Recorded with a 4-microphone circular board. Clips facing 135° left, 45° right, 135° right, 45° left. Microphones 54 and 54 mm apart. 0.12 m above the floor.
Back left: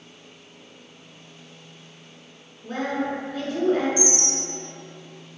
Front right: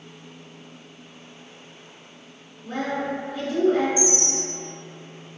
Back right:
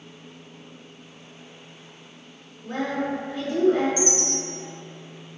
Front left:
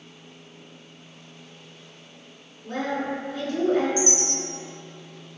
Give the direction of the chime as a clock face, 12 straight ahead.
11 o'clock.